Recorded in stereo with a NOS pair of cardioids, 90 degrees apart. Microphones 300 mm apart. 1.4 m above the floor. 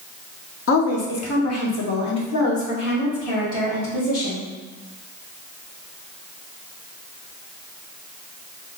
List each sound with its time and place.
0.7 s a woman speaking: 45° left, 1.0 m; by 4.5 s 70° left, 3 m